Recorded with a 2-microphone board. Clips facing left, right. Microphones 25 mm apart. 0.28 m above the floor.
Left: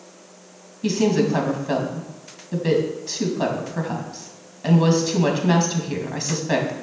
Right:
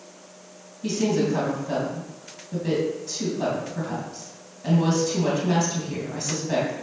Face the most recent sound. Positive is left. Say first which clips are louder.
# left 4 dB
turn(degrees=35)  # may be behind; listen again after turning